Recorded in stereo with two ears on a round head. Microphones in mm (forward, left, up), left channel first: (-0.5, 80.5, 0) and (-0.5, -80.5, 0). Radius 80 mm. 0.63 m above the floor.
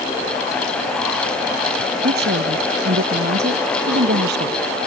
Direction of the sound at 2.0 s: 60° right (ahead or behind).